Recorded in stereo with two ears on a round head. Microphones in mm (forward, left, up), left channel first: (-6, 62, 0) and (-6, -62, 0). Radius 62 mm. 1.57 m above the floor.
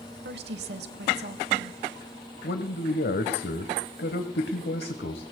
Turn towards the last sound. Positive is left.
turn(degrees=85)